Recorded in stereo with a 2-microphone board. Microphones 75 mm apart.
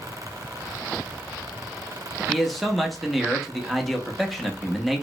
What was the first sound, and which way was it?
A man speaking, centre (ahead or behind).